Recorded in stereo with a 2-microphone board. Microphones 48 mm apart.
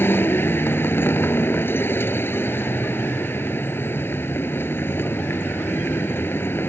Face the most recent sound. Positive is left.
turn(degrees=50)  # may be behind; listen again after turning